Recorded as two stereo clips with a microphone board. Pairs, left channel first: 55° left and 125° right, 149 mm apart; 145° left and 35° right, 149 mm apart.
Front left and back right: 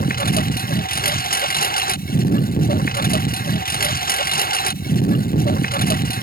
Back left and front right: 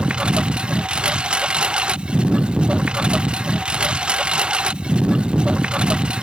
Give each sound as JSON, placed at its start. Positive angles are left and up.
{"t": 0.0, "sound": "a lawn mower", "azimuth_deg": 50}